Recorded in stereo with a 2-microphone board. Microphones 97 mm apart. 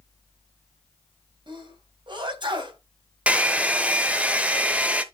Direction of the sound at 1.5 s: 55° right (ahead or behind).